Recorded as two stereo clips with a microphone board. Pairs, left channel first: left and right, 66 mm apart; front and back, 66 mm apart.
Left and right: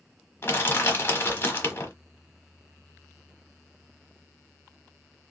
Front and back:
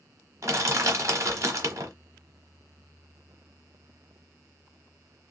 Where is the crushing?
145° left, 0.9 m.